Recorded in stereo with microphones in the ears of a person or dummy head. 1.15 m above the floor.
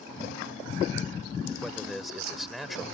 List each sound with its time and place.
1.6 s a man speaking: centre (ahead or behind)